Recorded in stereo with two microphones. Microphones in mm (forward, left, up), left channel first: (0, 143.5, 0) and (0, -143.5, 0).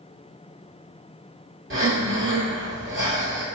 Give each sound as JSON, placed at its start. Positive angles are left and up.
{"t": 1.7, "sound": "breathing", "side_deg": -45, "distance_m": 1.4}